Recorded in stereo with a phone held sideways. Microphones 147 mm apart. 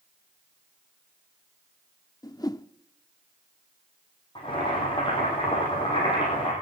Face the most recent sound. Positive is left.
turn(degrees=35)  # may be behind; listen again after turning